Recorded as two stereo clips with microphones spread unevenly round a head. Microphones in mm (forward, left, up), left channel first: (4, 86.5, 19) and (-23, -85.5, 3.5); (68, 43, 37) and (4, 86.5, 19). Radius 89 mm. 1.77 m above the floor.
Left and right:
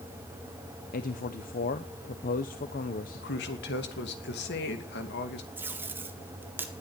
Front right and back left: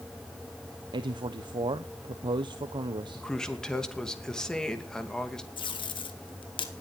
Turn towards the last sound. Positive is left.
turn(degrees=-20)